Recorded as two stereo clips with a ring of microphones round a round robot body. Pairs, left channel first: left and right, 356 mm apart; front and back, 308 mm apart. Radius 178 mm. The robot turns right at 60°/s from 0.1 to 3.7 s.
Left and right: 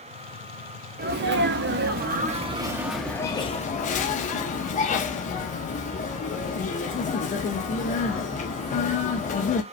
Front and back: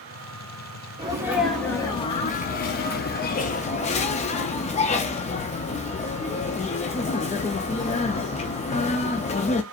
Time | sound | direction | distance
1.0 | a sneeze | 120° right | 0.6 m